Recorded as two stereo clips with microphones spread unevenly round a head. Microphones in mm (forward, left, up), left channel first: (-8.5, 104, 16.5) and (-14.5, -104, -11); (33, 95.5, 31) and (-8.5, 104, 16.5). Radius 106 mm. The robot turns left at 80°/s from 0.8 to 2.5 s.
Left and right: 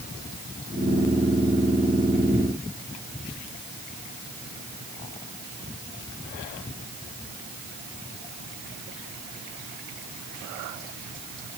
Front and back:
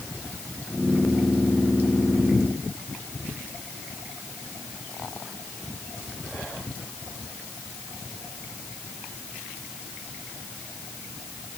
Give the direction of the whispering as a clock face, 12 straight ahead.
No whispering in this recording.